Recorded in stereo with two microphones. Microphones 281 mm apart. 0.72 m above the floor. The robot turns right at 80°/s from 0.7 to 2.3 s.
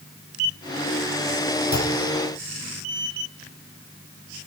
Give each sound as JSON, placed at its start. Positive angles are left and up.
{"t": 1.7, "sound": "a clunk", "side_deg": 75, "distance_m": 1.8}